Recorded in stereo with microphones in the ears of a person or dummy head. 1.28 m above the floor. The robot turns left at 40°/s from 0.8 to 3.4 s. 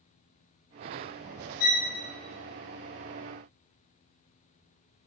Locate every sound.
1.6 s a violin: 50° left (ahead or behind), 0.9 m; by 1.9 s 45° left (ahead or behind), 0.9 m